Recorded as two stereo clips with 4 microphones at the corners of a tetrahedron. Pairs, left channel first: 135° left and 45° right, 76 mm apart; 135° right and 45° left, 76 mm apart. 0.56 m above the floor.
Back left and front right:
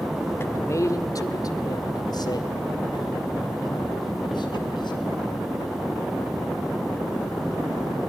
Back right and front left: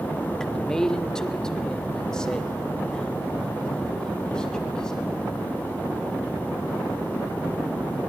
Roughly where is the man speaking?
Behind left.